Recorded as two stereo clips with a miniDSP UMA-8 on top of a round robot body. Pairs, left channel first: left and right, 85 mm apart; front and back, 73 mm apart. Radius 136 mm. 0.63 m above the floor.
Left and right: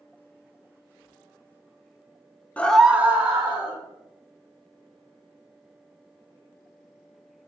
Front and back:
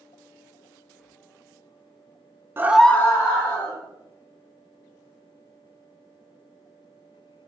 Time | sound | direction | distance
2.6 | a scream | 150° left | 0.6 m